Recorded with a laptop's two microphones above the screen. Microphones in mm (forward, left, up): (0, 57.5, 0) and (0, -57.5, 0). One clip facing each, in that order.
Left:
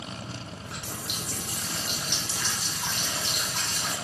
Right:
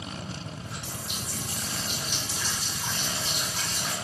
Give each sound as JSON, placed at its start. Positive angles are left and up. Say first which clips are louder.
{"t": 0.6, "sound": "a running tap", "louder": "even", "side_deg": 70, "distance_m": 0.9}